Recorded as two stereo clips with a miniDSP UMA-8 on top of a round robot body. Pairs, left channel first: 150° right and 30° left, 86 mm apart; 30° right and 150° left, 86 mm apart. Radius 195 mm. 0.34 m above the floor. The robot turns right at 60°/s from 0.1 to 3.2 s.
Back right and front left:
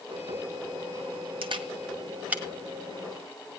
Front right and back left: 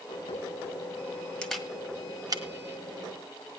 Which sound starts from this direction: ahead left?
A camera shutter, at 1.4 s.